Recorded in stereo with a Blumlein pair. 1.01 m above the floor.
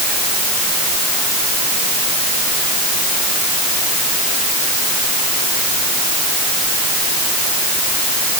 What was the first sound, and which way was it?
Only background noise.